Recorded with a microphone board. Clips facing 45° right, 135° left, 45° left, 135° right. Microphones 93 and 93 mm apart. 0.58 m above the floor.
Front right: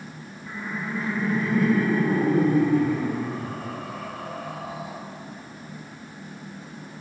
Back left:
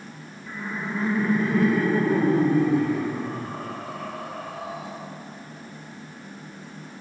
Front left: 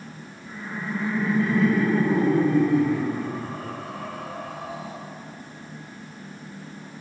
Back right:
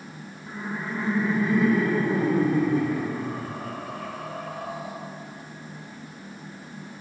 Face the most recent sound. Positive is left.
turn(degrees=130)